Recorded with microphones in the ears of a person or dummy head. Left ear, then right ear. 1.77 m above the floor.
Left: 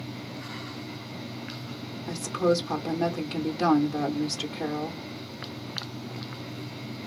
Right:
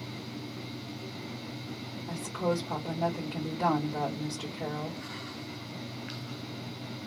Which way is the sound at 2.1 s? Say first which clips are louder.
Left 6 dB; 65° left (ahead or behind).